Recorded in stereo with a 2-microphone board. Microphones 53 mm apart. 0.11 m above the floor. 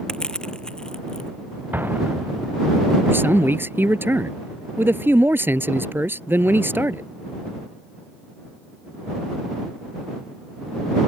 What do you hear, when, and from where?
0.1 s crushing: 15° left (ahead or behind)
1.7 s an explosion: 40° right (ahead or behind)
3.1 s a man speaking: 45° right (ahead or behind)